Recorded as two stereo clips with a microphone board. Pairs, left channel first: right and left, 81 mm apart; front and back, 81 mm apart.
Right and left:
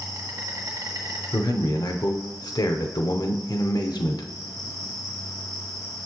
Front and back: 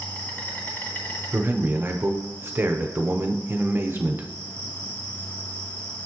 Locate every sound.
0.0 s an insect: 60° left, 2 m
1.3 s a man speaking: 120° right, 0.8 m